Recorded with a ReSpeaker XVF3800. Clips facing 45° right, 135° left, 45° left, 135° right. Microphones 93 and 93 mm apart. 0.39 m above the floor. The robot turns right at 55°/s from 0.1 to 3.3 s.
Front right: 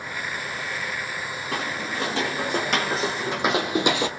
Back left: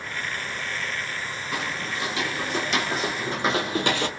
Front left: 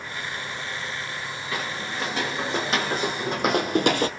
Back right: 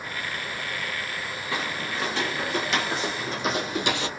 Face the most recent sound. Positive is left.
turn(degrees=25)